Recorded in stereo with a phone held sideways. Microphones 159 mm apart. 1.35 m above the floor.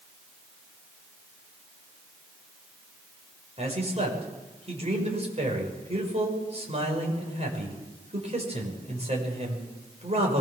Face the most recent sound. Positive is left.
turn(degrees=-40)  # may be behind; listen again after turning